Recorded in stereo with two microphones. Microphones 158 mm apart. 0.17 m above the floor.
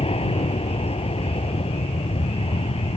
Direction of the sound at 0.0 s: 35° left (ahead or behind).